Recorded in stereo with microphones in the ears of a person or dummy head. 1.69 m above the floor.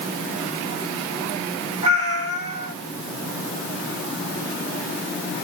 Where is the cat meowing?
30° right (ahead or behind), 2.5 m.